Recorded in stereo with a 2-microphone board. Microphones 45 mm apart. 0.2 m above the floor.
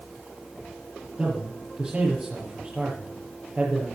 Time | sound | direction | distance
1.2 | a man speaking | 30° right (ahead or behind) | 5 m